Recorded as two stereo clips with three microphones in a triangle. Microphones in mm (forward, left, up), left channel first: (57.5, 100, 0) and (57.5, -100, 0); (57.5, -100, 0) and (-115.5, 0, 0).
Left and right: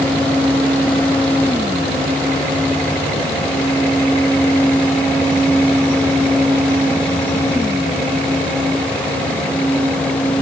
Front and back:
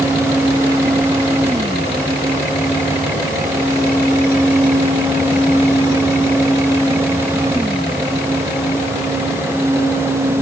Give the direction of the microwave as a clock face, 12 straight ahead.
No microwave in this recording.